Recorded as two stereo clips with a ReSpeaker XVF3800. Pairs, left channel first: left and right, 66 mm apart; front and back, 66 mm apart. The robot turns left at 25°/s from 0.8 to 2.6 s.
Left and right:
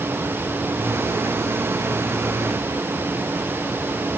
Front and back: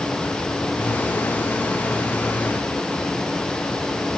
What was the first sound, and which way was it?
Only background noise.